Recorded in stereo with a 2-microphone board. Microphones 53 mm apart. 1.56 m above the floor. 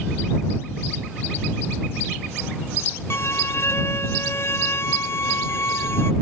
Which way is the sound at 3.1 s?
60° left (ahead or behind).